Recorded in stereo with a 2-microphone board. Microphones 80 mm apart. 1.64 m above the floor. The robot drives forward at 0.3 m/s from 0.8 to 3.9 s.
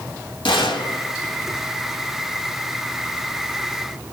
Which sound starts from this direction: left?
A gunshot, at 0.5 s.